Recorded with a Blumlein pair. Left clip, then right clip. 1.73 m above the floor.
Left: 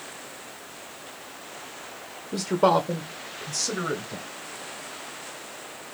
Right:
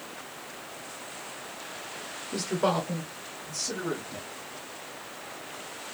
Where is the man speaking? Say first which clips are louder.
Left 6 dB; 10° left, 0.5 m; by 4.3 s 65° left, 1.3 m.